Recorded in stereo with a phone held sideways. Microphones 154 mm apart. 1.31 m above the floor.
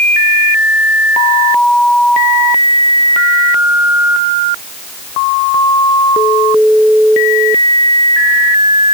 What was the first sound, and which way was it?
Only background noise.